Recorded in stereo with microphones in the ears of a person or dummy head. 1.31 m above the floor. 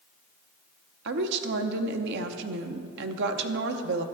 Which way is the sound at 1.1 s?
65° right (ahead or behind).